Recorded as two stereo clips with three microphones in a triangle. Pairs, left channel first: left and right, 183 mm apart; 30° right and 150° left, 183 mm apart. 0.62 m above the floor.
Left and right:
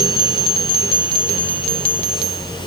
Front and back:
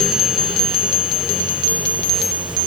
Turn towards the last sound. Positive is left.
No sound to turn to.